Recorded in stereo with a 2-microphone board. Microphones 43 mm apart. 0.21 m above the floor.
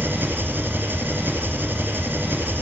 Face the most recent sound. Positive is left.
turn(degrees=-50)  # may be behind; listen again after turning